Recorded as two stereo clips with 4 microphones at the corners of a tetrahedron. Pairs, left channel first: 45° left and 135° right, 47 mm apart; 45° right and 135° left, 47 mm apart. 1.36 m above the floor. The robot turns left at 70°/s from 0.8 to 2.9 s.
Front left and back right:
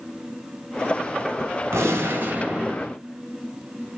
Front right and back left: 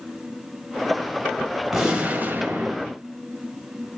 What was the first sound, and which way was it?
A gunshot, 140° right.